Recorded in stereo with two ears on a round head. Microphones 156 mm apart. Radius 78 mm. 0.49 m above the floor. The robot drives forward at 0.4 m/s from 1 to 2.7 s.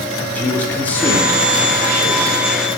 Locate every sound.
0.3 s a man speaking: 10° left (ahead or behind), 0.9 m